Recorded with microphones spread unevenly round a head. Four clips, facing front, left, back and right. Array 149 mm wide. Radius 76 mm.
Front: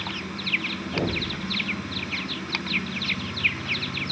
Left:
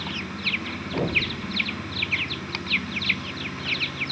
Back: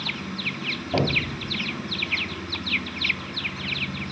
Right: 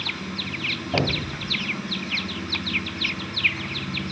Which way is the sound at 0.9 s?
160° right.